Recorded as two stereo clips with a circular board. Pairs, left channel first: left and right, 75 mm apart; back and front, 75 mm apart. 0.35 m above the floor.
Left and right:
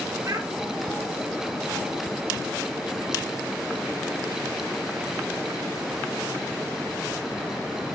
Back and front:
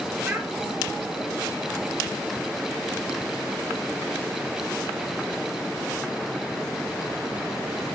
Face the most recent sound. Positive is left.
turn(degrees=-65)